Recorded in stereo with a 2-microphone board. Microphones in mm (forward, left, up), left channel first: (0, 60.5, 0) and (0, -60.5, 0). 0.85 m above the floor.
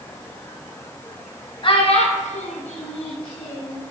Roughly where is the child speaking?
Left.